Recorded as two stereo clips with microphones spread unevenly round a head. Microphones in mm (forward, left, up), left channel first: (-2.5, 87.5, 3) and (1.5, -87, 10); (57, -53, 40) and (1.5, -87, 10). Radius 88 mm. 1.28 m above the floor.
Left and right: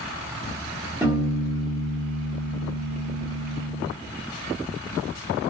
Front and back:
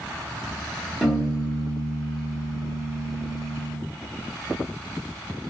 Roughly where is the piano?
Ahead.